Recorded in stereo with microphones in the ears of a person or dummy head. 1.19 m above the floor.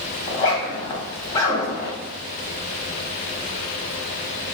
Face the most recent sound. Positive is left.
turn(degrees=25)  # may be behind; listen again after turning